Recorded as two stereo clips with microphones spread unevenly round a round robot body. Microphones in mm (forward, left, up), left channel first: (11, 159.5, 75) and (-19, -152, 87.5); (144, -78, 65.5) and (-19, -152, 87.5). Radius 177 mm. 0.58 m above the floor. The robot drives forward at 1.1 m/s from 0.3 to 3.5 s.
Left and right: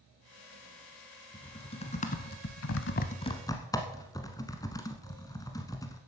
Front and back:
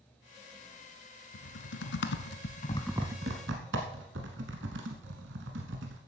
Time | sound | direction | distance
1.3 | typing on a keyboard | 10° left | 1.6 m